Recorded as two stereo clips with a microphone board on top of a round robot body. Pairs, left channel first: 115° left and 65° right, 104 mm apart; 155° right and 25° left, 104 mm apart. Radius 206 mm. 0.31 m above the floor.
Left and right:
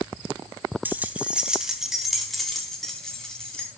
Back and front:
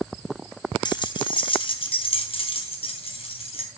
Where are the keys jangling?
135° right, 1.3 m; by 3.7 s 165° right, 2.5 m.